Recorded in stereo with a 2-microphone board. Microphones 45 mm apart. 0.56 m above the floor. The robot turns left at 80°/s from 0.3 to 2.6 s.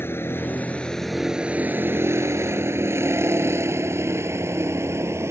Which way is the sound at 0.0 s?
55° left (ahead or behind).